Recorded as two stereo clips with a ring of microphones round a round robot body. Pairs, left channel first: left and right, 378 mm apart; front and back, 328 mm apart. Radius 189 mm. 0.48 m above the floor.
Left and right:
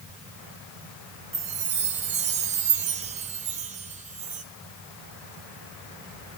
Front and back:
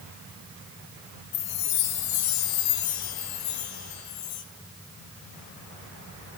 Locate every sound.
1.3 s a chime: 20° right, 1.9 m